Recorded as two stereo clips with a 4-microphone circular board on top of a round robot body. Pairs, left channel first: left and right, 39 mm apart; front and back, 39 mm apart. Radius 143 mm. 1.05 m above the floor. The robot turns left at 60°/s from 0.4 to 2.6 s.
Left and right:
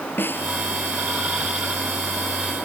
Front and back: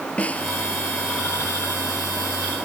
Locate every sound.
0.2 s a snare drum: 60° left; by 0.5 s 55° left